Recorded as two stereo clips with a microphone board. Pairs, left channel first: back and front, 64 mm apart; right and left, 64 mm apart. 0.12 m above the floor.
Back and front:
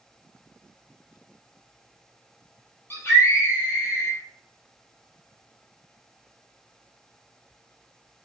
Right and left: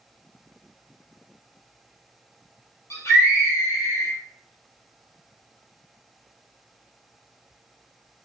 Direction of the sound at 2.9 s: 130° right.